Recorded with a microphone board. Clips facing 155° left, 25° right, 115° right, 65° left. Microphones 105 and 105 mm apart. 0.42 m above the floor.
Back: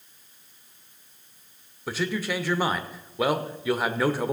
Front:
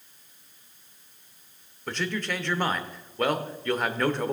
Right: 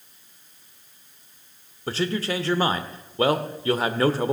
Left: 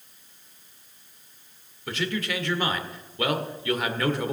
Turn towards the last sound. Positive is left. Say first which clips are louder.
# back 2 dB, right 4 dB
turn(degrees=-125)